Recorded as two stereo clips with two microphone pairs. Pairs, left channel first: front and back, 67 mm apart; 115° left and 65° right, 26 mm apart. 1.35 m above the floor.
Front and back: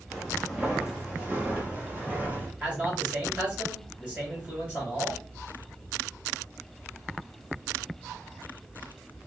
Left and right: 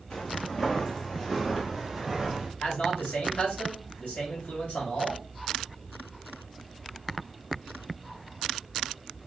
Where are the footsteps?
110° left, 1.5 m; by 2.5 s 140° right, 1.5 m.